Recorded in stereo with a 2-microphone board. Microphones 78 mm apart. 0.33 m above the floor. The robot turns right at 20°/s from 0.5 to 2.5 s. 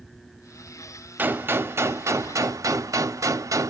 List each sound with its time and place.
1.2 s a gunshot: 25° right (ahead or behind), 0.5 m; by 3.7 s 50° right (ahead or behind), 0.5 m